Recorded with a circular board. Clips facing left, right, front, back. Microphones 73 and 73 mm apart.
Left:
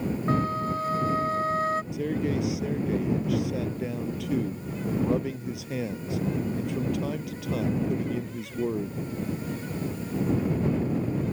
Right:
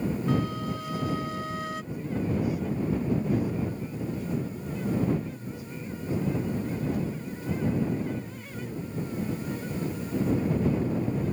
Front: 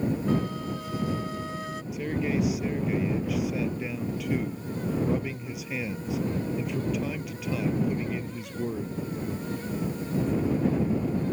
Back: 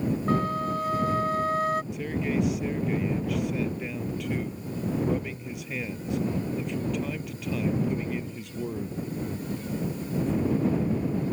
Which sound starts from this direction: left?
A man speaking, at 1.9 s.